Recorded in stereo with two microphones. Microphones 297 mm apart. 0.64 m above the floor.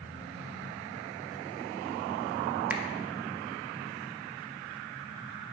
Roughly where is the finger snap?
Centre.